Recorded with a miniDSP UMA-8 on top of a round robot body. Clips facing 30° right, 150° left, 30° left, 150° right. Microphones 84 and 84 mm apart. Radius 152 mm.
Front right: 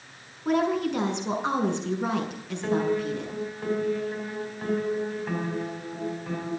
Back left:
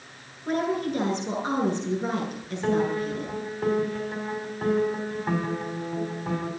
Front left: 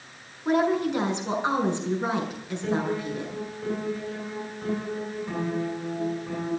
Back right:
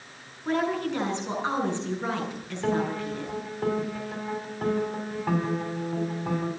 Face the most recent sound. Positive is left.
turn(degrees=-145)